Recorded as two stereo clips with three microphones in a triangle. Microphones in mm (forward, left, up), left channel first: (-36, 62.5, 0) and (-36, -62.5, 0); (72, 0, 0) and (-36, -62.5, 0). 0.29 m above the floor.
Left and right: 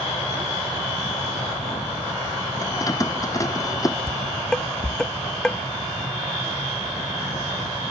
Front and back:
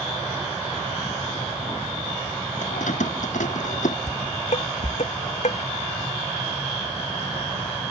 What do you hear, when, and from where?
2.6 s keys jangling: 25° left
4.1 s dishes clattering: 5° left